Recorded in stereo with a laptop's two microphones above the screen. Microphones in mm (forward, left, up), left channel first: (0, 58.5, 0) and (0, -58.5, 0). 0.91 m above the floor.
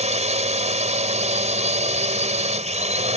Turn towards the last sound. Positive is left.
turn(degrees=-80)